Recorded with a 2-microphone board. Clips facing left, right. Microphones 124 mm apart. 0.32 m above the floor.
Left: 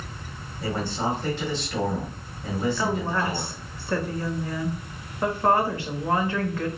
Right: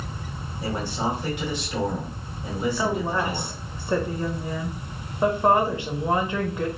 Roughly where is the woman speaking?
Centre.